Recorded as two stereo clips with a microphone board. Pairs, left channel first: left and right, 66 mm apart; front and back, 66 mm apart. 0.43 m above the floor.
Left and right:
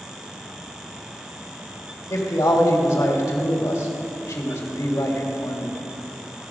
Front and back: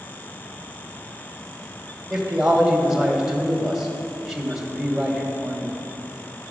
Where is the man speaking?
100° left, 1.7 m.